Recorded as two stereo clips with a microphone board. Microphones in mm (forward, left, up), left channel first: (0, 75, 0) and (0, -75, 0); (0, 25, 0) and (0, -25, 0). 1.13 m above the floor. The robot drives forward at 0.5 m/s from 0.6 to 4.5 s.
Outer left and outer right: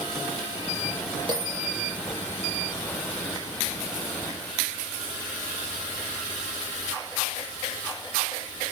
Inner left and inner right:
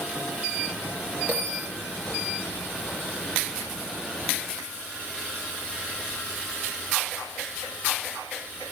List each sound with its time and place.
1.3 s a bell: 35° right (ahead or behind), 5.5 m